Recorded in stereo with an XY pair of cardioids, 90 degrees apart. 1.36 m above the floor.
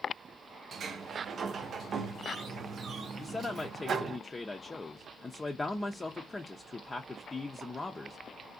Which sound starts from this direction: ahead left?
A man speaking, at 3.2 s.